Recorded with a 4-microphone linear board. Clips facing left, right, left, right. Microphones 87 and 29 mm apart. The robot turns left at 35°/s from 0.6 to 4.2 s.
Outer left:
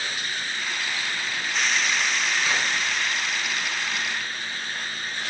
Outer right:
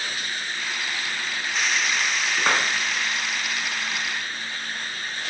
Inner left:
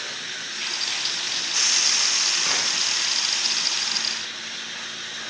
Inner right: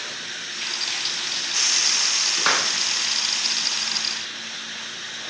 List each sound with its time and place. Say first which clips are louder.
2.4 s a clap: outer right 7 dB, inner right 3 dB; 65° right (ahead or behind), 3 m; by 2.7 s 60° right (ahead or behind), 3 m